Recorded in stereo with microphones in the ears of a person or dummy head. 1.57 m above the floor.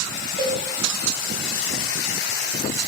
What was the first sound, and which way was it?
A cowbell, 30° right (ahead or behind).